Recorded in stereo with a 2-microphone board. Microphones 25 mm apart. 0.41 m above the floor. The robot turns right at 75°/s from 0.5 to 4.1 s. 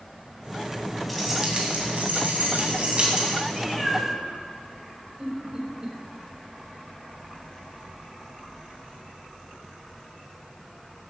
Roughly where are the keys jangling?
Behind.